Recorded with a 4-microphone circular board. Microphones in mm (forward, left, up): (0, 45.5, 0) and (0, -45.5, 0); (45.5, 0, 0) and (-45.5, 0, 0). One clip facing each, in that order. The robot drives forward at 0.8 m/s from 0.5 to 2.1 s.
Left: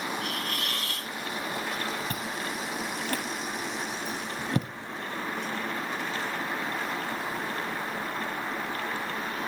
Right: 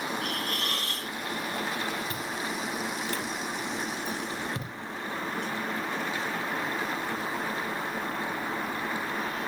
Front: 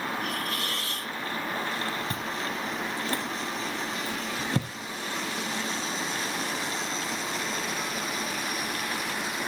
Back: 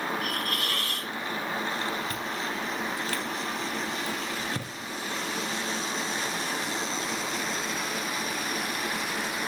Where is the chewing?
65° left, 3 m.